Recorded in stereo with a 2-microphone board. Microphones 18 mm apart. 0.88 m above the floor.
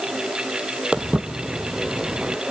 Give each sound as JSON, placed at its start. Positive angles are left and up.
{"t": 0.9, "sound": "footsteps", "side_deg": -60, "distance_m": 1.6}